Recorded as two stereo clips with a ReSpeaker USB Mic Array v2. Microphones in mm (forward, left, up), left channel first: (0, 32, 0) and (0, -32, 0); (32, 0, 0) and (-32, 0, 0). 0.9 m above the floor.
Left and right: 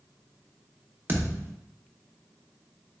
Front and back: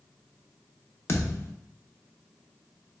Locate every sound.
1.1 s a thud: 40° right, 0.6 m